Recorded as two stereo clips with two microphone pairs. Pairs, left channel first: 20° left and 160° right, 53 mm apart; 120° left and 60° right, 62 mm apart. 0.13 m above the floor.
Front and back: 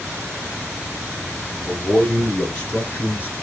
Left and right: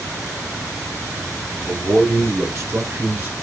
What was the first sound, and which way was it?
A man speaking, 70° right.